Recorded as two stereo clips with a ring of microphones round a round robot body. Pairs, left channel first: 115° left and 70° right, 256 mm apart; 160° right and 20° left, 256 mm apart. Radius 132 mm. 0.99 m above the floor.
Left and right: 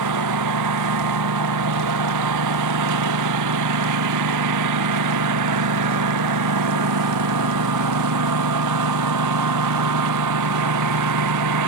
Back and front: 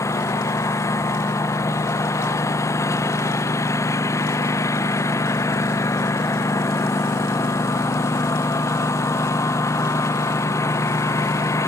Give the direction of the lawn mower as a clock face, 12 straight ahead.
3 o'clock.